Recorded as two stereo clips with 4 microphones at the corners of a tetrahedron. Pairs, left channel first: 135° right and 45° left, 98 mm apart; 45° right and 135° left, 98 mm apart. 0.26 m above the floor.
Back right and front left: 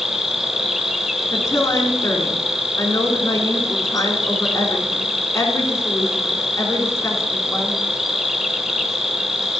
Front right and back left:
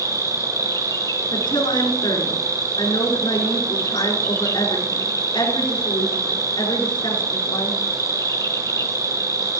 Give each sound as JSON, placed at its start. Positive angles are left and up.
{"t": 0.0, "sound": "an insect", "azimuth_deg": -40, "distance_m": 1.3}
{"t": 1.3, "sound": "a woman speaking", "azimuth_deg": -80, "distance_m": 3.5}